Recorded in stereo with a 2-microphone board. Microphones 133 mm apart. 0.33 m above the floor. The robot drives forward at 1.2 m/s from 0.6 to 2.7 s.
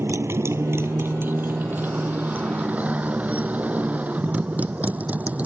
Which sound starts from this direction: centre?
A motorcycle, at 0.0 s.